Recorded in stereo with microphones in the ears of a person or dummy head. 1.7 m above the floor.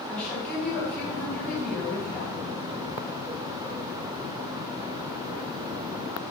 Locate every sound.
0.1 s a woman speaking: 10° left (ahead or behind), 1.3 m